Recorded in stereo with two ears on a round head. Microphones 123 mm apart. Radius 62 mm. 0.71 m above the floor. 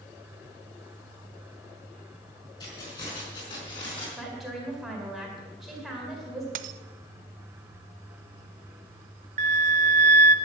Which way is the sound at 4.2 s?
5° right (ahead or behind).